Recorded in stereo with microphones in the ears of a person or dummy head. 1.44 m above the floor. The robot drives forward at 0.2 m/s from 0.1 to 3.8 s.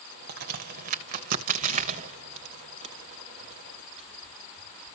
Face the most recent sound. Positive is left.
turn(degrees=-30)  # may be behind; listen again after turning